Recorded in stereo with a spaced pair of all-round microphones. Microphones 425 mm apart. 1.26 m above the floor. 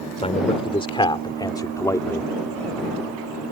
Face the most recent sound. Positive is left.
turn(degrees=5)  # may be behind; listen again after turning